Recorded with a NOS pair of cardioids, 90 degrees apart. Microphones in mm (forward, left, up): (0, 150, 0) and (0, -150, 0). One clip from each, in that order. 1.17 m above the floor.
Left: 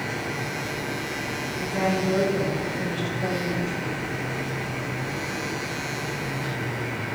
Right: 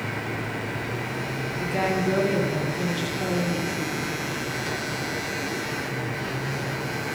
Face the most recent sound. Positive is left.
turn(degrees=-40)